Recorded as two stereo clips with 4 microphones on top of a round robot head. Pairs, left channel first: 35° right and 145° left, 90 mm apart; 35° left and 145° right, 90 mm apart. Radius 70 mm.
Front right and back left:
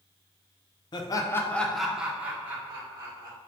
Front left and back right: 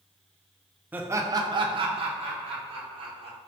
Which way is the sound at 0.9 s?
75° right.